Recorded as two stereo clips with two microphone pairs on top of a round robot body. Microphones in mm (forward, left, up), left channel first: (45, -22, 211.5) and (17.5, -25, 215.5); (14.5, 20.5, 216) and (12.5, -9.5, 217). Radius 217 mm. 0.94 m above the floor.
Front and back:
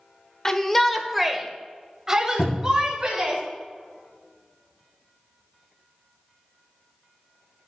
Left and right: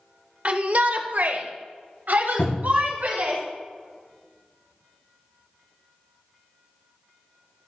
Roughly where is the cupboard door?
Ahead left.